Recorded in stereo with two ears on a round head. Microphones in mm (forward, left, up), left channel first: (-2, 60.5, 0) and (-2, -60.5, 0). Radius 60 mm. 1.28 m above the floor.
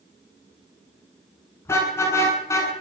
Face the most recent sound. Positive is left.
turn(degrees=20)  # may be behind; listen again after turning